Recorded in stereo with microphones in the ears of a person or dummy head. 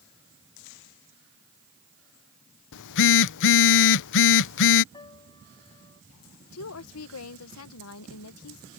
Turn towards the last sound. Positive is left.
turn(degrees=80)